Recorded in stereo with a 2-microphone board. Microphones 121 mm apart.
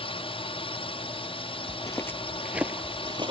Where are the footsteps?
35° left (ahead or behind); by 3.3 s 40° right (ahead or behind).